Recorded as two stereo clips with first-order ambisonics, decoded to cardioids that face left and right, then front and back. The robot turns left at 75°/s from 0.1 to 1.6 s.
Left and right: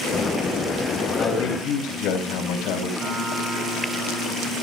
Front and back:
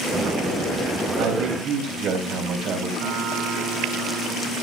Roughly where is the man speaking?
Behind left.